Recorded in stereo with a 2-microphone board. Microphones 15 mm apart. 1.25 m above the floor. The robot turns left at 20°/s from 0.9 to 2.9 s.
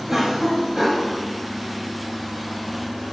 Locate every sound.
0.1 s a cough: 35° right (ahead or behind), 0.9 m; by 1.1 s 40° right (ahead or behind), 0.9 m